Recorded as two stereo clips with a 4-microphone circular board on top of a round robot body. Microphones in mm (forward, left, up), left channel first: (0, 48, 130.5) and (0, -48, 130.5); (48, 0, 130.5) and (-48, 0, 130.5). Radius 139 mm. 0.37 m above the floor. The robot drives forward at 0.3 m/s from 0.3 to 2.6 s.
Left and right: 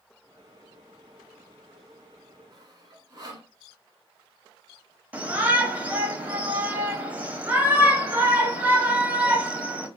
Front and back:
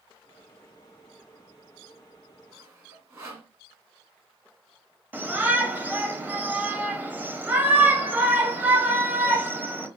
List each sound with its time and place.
2.5 s sawing: 125° right, 1.5 m
5.1 s a shout: 135° right, 1.2 m